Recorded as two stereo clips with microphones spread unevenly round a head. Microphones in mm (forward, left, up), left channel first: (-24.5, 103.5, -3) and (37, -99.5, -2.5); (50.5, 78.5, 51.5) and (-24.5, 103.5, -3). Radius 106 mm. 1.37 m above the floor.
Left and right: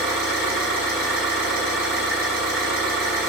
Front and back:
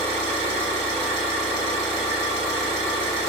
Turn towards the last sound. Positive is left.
turn(degrees=-150)